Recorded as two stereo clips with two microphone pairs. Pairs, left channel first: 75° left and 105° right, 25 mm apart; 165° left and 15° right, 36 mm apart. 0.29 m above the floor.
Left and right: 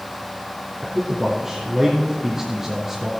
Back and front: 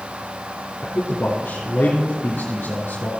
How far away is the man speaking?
About 4 m.